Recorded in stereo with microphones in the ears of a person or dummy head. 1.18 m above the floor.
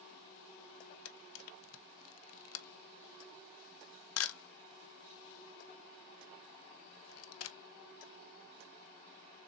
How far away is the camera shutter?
About 0.6 m.